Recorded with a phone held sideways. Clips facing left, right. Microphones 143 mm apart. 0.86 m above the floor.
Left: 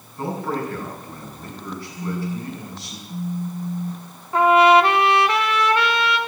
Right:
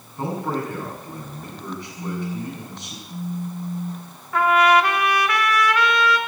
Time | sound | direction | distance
0.2 | a man speaking | 20° right (ahead or behind) | 6 m
2.0 | a phone buzzing | 15° left (ahead or behind) | 1.7 m
4.3 | a trumpet | 25° left (ahead or behind) | 1.1 m